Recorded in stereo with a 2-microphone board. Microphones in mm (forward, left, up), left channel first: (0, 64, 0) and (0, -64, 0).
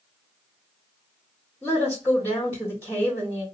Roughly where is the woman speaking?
Centre.